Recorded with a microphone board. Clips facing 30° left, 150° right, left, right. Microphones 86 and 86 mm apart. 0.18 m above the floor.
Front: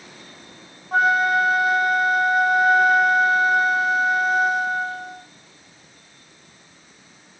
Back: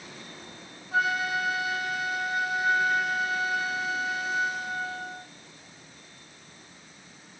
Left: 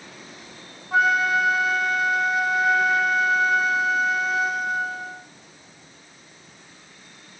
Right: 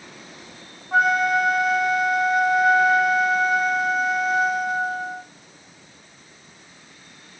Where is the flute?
Straight ahead, 1.0 m.